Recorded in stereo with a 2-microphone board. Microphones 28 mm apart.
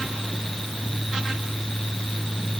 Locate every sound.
Only background noise.